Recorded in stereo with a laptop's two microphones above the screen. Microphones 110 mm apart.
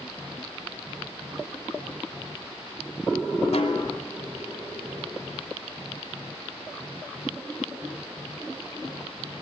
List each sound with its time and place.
3.5 s a snare drum: 75° left (ahead or behind), 3 m